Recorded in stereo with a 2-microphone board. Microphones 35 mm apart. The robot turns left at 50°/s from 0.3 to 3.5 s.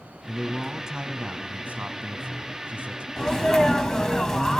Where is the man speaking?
5° left, 1.6 m; by 3.1 s 135° right, 1.6 m.